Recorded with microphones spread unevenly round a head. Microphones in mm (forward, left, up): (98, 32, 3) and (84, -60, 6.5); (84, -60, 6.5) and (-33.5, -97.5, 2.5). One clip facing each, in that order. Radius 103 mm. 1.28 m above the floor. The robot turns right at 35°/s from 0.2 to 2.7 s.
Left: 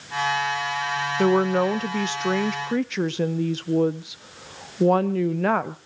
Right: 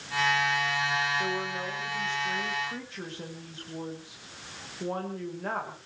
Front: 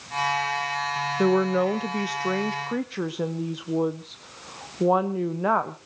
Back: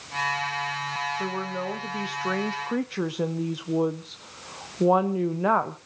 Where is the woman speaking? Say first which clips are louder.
Left 13 dB, front 10 dB; 55° left, 0.8 m; by 5.8 s 110° left, 0.8 m.